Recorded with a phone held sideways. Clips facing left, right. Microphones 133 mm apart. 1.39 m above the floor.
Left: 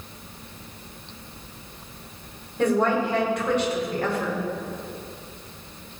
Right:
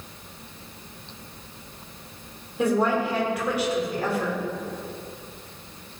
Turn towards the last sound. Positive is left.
turn(degrees=-10)  # may be behind; listen again after turning